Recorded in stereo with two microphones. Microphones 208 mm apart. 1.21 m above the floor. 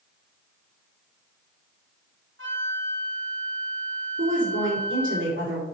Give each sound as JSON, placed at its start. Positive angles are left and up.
{"t": 2.4, "sound": "a flute", "side_deg": -75, "distance_m": 1.8}
{"t": 4.2, "sound": "a woman speaking", "side_deg": -70, "distance_m": 3.5}